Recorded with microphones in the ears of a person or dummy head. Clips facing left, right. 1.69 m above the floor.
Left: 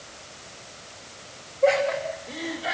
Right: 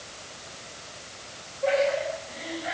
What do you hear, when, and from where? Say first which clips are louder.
1.6 s laughter: left 2 dB; 60° left (ahead or behind), 5.5 m; by 2.7 s 55° left (ahead or behind), 5 m